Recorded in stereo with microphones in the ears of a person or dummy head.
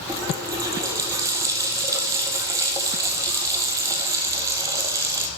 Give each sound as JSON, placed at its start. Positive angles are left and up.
{"t": 0.1, "sound": "a running tap", "side_deg": -20, "distance_m": 1.7}